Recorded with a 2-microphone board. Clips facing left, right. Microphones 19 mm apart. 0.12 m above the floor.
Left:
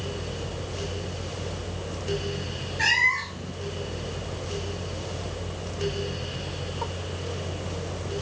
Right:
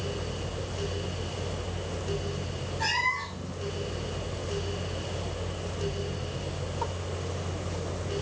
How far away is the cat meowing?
About 3.5 m.